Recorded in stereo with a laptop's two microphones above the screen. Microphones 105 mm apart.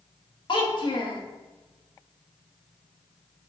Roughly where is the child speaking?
Left.